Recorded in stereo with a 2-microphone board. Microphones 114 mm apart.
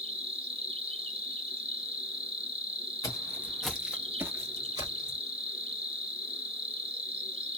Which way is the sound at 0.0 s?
55° right (ahead or behind).